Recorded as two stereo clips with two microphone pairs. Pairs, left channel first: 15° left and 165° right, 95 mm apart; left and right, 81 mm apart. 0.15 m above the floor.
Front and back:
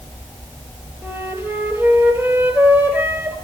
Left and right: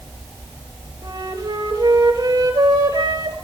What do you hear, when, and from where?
1.0 s a flute: 105° right, 2.5 m